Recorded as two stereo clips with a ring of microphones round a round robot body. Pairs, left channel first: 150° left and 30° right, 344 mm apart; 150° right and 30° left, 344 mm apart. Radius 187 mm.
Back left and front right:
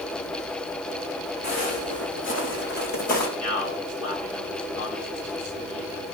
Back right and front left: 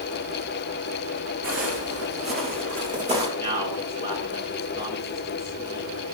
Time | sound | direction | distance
1.4 | footsteps | 85° left | 4 m
3.4 | a man speaking | 105° left | 6.5 m